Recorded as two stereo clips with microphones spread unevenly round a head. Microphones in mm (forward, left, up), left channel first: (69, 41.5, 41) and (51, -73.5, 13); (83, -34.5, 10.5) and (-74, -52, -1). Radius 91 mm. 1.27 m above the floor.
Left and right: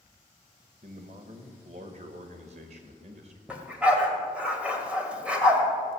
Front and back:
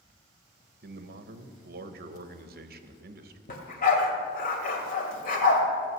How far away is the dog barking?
About 1.9 m.